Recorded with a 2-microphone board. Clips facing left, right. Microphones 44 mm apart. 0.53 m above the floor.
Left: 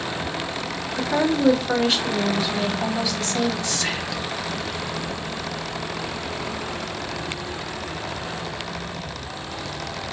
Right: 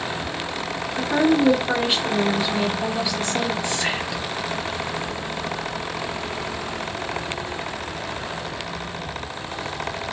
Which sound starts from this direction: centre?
A woman speaking, at 1.0 s.